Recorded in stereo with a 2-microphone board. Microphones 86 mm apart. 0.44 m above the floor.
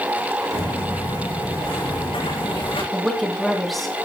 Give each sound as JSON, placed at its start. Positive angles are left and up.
{"t": 0.5, "sound": "footsteps", "side_deg": 80, "distance_m": 7.0}
{"t": 2.9, "sound": "a woman speaking", "side_deg": 0, "distance_m": 3.5}